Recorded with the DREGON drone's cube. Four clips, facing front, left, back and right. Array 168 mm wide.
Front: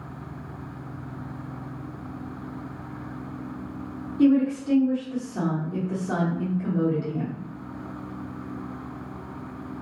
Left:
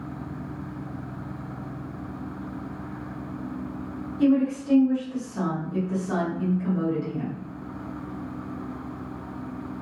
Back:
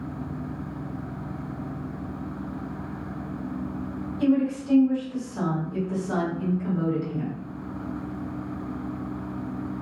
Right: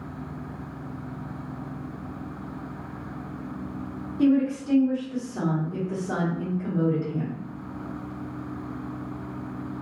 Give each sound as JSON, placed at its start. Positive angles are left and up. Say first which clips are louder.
{"t": 4.2, "sound": "a woman speaking", "louder": "even, front 3 dB", "azimuth_deg": -25, "distance_m": 1.4}